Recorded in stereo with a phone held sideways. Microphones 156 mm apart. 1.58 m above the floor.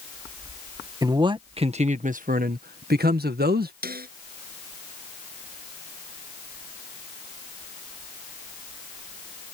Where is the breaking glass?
I don't hear breaking glass.